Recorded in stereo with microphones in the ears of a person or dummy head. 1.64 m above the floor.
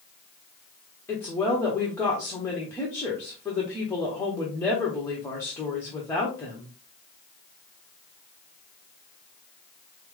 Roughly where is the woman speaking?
Centre.